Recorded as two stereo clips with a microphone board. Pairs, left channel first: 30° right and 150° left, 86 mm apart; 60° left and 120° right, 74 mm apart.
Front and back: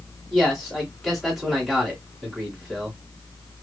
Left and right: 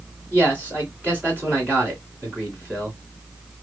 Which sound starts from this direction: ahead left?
A man speaking, at 0.3 s.